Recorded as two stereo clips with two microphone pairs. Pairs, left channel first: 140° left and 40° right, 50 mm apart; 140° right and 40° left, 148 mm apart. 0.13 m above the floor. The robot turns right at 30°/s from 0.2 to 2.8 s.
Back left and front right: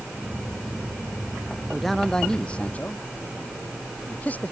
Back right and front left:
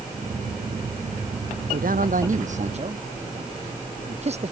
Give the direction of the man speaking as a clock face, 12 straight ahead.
10 o'clock.